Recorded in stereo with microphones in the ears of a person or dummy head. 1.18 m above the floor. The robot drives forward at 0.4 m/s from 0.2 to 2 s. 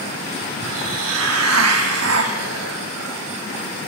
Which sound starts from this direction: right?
A hiss, at 0.6 s.